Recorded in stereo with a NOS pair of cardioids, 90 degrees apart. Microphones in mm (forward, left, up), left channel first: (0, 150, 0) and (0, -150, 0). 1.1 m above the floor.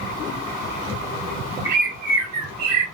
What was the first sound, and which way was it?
A bird, 65° right.